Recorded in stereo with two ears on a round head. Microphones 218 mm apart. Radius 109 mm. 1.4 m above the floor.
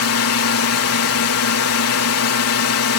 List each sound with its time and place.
0.0 s a drone: 65° left (ahead or behind)